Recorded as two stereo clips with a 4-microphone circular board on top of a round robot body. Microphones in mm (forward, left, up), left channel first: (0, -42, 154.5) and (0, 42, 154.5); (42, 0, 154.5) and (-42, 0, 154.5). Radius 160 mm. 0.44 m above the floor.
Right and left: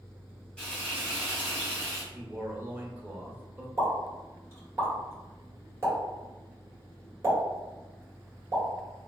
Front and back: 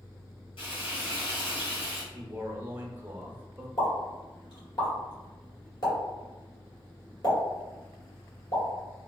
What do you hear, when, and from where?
0.6 s frying: 10° right, 1.7 m
2.1 s a man speaking: 135° left, 1.1 m
3.8 s a pop: 30° left, 2.0 m